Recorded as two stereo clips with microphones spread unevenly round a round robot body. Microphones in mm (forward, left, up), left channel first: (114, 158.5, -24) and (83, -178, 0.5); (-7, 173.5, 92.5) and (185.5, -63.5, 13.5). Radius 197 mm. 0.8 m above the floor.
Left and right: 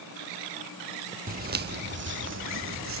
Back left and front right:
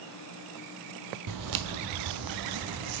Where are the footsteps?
45° right, 1.0 m; by 3.0 s 50° right, 1.8 m.